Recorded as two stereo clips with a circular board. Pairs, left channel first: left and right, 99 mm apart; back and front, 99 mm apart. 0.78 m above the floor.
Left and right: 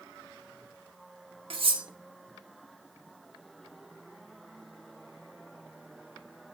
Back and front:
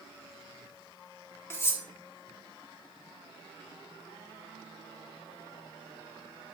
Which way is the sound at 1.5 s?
115° right.